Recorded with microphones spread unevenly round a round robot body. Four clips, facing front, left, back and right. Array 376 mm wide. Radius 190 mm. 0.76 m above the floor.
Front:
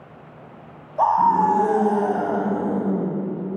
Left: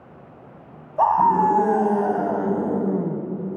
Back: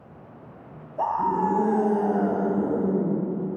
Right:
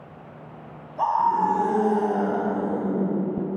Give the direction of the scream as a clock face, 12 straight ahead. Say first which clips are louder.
Left 4 dB, front 7 dB; 10 o'clock.